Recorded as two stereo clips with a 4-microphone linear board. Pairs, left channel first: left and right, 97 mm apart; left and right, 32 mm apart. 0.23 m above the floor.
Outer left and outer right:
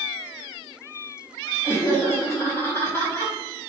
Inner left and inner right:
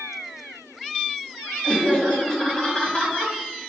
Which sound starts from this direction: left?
Laughter, at 1.6 s.